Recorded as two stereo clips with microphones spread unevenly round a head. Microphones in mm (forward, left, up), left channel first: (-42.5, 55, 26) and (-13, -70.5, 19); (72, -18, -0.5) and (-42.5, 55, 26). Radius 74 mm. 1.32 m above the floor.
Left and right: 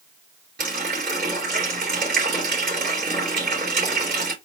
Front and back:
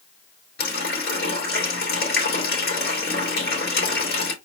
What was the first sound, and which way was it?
A running tap, 45° right.